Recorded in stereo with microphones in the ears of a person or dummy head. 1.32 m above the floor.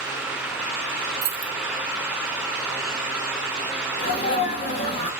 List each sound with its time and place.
1.2 s keys jangling: 55° right (ahead or behind), 0.5 m
4.0 s a sneeze: 45° left (ahead or behind), 1.7 m